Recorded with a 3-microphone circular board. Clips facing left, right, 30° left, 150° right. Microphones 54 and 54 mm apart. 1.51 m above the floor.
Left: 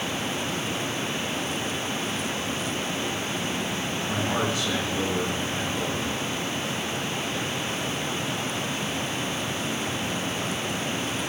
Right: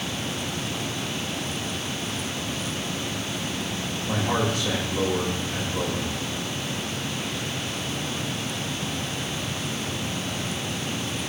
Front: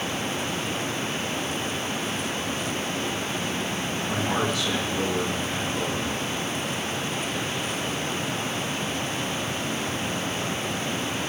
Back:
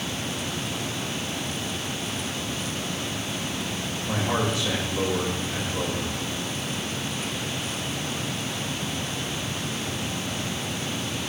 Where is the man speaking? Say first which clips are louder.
Right 3 dB, back 1 dB; 105° right, 2.5 m.